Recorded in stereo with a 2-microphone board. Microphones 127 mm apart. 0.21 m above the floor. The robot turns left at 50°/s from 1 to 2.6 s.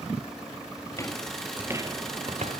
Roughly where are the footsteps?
Left.